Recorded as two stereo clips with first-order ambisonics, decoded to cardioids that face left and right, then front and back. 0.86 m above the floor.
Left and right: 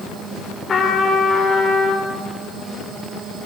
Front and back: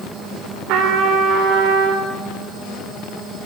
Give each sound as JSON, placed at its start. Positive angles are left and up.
{"t": 0.7, "sound": "a trumpet", "azimuth_deg": 155, "distance_m": 3.5}